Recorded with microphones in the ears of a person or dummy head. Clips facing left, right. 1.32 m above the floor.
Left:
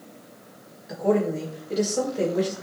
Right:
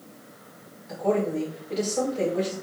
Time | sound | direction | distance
0.9 | a woman speaking | 15° left (ahead or behind) | 4.5 m